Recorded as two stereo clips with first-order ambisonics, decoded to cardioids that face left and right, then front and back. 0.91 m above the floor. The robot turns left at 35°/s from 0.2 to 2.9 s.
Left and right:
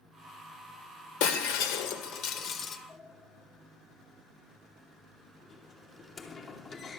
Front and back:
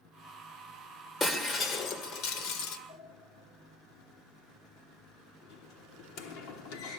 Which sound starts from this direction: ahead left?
A sliding door, at 2.9 s.